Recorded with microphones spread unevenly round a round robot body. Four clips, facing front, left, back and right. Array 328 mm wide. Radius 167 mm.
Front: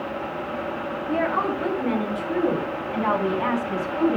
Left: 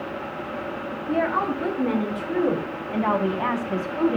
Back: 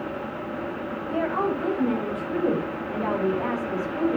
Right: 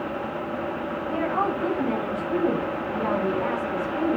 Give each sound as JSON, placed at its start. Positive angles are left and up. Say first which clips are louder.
{"t": 1.1, "sound": "a woman speaking", "louder": "left 2 dB, front 1 dB", "azimuth_deg": 95, "distance_m": 7.0}